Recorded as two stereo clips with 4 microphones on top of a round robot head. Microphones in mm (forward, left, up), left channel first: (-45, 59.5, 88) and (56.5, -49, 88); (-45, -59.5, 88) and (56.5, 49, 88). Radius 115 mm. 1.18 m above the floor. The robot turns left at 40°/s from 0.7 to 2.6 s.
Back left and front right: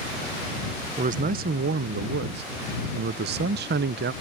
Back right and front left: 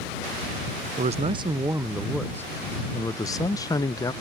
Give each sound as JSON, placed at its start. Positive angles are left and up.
{"t": 1.0, "sound": "a man speaking", "azimuth_deg": 0}